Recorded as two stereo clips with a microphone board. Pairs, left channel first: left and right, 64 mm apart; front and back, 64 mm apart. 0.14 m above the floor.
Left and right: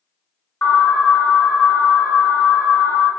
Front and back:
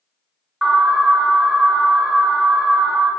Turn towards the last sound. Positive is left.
turn(degrees=115)